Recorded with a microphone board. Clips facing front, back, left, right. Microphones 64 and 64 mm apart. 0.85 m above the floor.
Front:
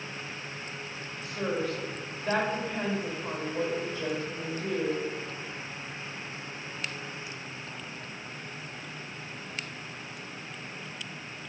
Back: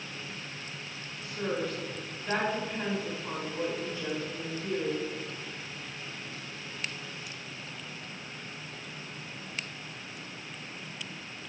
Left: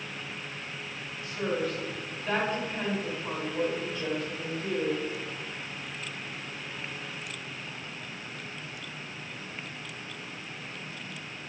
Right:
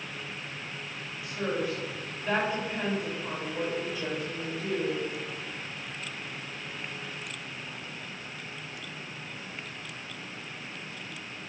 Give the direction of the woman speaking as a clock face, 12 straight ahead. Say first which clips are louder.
Front 2 dB, even; 12 o'clock.